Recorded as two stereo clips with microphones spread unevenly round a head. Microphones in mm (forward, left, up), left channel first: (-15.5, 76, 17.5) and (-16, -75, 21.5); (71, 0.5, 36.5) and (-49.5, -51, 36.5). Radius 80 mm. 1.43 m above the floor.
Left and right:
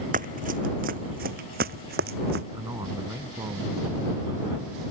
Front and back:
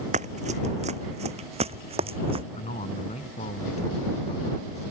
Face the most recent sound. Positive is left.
turn(degrees=-15)